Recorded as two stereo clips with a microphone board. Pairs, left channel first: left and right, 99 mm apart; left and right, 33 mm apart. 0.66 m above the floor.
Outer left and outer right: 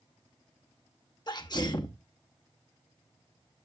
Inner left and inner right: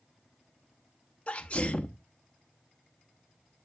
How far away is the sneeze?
About 0.7 m.